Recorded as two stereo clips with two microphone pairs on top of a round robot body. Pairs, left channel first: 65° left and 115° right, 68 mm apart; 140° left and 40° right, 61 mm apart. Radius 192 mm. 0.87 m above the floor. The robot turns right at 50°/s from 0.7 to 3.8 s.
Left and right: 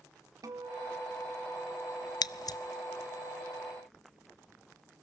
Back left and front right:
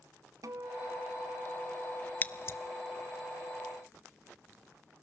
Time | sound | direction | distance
0.4 | a guitar | 75° right | 0.8 m
2.2 | scissors | 75° left | 0.6 m